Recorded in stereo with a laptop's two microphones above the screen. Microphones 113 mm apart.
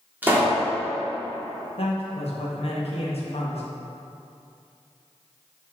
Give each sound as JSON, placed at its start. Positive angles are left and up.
{"t": 0.2, "sound": "a pop", "side_deg": -15, "distance_m": 1.7}
{"t": 1.8, "sound": "a man speaking", "side_deg": 60, "distance_m": 1.4}